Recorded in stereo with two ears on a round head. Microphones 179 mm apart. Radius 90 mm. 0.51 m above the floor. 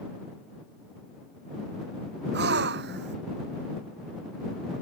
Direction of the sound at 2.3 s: 55° right (ahead or behind).